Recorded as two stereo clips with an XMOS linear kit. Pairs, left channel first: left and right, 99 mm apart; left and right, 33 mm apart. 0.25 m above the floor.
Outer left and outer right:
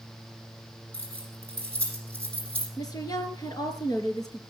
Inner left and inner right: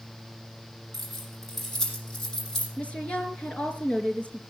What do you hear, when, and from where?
0.9 s keys jangling: 15° left (ahead or behind), 6 m
2.8 s a woman speaking: 40° left (ahead or behind), 3.5 m